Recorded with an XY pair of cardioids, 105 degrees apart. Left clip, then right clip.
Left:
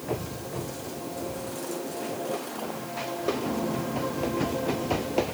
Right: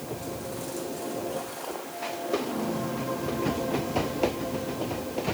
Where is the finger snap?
I don't hear a finger snap.